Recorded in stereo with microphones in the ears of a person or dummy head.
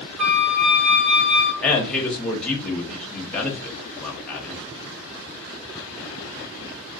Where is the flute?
5° right (ahead or behind), 0.6 m.